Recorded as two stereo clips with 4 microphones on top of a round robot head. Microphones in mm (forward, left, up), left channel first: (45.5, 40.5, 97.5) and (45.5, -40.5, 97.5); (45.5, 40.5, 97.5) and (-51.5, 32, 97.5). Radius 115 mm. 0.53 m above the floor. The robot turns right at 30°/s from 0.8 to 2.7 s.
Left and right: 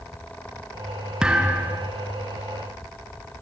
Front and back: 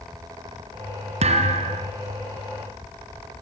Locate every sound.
1.2 s a thud: 170° right, 3.5 m; by 1.9 s 150° right, 3.5 m